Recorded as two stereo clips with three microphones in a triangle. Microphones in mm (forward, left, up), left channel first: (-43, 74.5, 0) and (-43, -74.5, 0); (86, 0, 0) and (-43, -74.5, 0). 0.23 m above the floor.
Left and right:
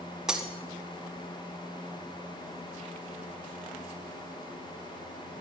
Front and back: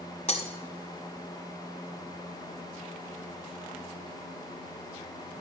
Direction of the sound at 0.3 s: 5° right.